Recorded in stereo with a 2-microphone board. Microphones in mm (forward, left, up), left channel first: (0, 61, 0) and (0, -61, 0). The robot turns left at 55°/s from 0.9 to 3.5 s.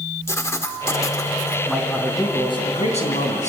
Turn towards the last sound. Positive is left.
turn(degrees=80)